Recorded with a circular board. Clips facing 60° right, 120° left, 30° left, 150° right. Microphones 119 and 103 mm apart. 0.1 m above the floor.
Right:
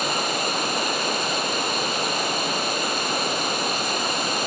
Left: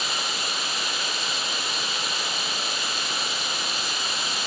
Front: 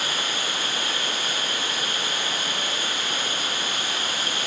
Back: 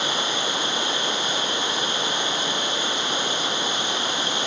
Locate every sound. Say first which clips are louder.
0.0 s running water: right 7 dB, back 4 dB; 85° right, 0.8 m